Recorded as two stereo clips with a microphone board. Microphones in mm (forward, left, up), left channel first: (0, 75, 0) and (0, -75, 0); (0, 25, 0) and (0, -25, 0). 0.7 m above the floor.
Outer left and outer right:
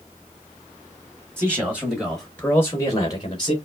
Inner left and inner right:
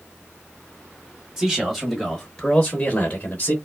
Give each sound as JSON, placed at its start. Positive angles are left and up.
{"t": 1.4, "sound": "a man speaking", "side_deg": -15, "distance_m": 1.4}